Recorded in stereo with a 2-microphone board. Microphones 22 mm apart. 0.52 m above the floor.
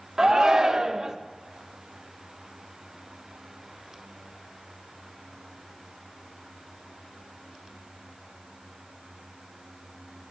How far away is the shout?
About 1.4 m.